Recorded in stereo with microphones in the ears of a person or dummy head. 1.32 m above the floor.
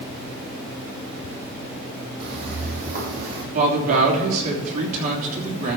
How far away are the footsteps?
About 3.5 m.